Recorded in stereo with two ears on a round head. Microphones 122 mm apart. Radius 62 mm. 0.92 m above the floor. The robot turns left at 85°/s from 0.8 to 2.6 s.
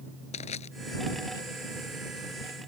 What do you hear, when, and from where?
0.3 s crushing: 55° left (ahead or behind)